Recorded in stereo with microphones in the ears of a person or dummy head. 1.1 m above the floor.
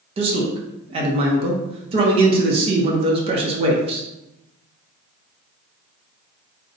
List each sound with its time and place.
0.2 s a man speaking: 30° right (ahead or behind), 0.5 m